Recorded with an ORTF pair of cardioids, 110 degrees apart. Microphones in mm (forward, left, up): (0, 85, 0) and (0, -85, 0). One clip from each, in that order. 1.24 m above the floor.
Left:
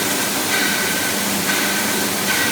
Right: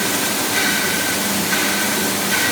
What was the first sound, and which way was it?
Only background noise.